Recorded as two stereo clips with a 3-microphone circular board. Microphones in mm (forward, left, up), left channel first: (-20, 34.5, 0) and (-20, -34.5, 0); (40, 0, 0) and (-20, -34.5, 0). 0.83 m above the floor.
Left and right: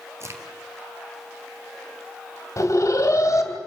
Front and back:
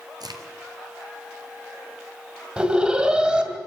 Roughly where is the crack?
Behind right.